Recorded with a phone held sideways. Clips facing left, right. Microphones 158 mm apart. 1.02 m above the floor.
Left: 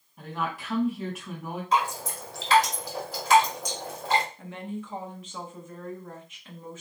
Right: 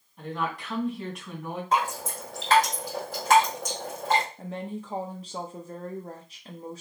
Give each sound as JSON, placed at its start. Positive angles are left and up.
{"t": 0.2, "sound": "a woman speaking", "side_deg": 5, "distance_m": 2.0}
{"t": 1.7, "sound": "dripping", "side_deg": -50, "distance_m": 1.7}
{"t": 4.4, "sound": "a woman speaking", "side_deg": -35, "distance_m": 0.6}